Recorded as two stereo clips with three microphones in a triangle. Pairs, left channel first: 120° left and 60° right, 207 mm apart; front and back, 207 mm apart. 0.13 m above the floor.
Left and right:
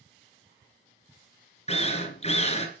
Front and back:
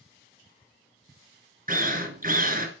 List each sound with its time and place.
1.7 s a drill: 165° left, 2.5 m